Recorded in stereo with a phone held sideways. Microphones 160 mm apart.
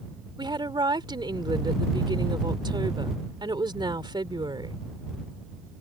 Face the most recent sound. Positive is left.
turn(degrees=-30)  # may be behind; listen again after turning